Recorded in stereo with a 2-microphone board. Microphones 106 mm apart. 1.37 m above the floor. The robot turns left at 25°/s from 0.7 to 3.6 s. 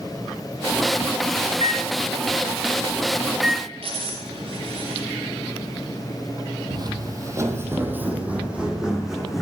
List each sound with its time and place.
1.5 s a microwave: 50° right (ahead or behind), 1.5 m; by 3.6 s centre (ahead or behind), 1.5 m
3.8 s a dropped coin: 65° right (ahead or behind), 8.5 m
6.7 s footsteps: 40° right (ahead or behind), 2.0 m; by 9.4 s centre (ahead or behind), 3.5 m